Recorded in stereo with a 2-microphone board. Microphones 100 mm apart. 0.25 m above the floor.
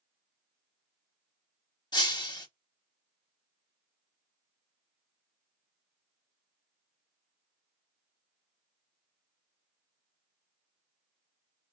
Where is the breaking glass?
45° left (ahead or behind), 0.7 m.